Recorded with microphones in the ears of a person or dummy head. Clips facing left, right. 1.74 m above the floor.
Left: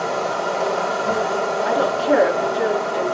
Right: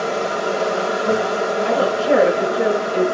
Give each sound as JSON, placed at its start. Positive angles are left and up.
{"t": 0.0, "sound": "an insect", "side_deg": -30, "distance_m": 1.9}
{"t": 1.6, "sound": "a woman speaking", "side_deg": -60, "distance_m": 3.0}